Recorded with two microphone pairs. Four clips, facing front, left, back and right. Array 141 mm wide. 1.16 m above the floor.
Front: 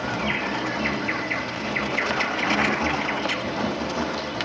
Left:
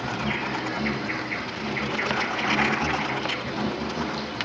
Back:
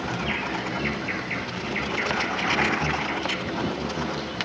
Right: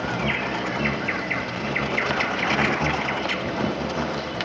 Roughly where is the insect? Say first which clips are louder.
Right 3 dB, front 2 dB; ahead right.